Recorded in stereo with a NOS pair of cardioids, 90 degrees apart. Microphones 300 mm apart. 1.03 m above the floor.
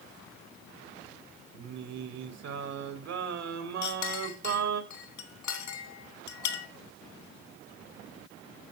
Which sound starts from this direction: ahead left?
A clink, at 3.8 s.